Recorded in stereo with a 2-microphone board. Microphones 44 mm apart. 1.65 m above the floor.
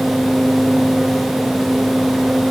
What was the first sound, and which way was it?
Only background noise.